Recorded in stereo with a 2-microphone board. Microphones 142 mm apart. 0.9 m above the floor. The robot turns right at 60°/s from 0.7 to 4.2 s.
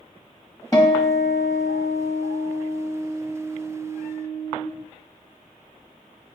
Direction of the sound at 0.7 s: 30° left.